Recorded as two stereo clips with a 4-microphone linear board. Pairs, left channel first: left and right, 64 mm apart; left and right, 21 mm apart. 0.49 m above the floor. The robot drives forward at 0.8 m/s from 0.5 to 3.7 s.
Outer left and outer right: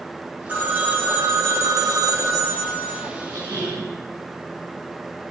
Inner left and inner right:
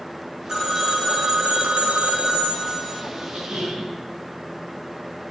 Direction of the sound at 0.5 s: 25° right (ahead or behind).